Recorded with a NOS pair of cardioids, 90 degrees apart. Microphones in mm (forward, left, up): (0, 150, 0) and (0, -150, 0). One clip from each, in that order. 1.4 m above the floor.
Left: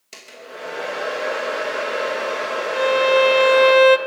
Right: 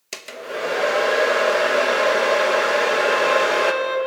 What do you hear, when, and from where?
0.1 s a hair dryer: 55° right, 1.1 m
2.7 s a violin: 55° left, 0.5 m